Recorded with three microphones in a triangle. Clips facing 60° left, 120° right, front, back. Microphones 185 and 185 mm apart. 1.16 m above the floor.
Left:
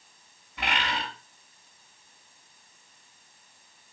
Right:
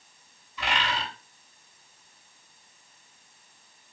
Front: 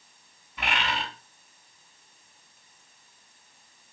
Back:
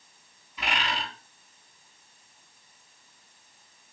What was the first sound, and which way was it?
A bird, 35° left.